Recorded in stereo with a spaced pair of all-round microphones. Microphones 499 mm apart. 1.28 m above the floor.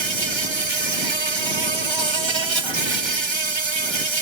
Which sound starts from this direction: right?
An insect, at 0.0 s.